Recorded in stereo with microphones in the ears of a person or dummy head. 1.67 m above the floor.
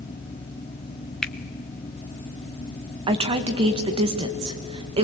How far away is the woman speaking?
About 1.8 m.